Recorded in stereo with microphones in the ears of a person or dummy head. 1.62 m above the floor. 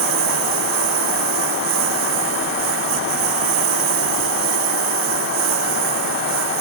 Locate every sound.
0.0 s a lawn mower: 75° right (ahead or behind)